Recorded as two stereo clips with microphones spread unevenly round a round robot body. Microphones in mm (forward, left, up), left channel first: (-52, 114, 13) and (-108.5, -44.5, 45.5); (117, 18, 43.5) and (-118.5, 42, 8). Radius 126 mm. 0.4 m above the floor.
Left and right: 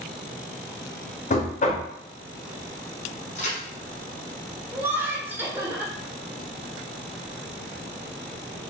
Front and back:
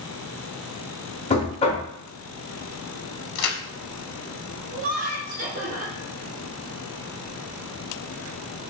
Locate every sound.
1.3 s knocking: 60° left, 0.9 m
3.4 s a crack: 5° left, 0.7 m
4.7 s laughter: 165° left, 1.2 m